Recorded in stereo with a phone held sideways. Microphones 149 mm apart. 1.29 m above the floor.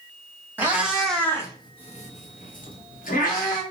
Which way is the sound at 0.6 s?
15° right (ahead or behind).